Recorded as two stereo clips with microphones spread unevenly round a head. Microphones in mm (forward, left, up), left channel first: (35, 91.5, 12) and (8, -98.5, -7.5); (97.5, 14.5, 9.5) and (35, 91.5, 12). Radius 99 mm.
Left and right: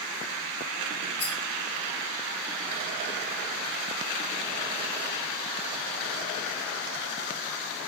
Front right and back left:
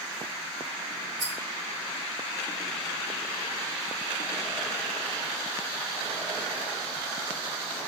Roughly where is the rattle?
Behind left.